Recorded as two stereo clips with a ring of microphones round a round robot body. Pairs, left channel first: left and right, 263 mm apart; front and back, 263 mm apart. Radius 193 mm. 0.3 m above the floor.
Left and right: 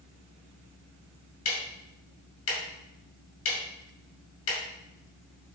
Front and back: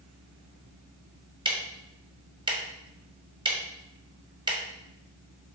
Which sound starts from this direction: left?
Ticking, at 1.4 s.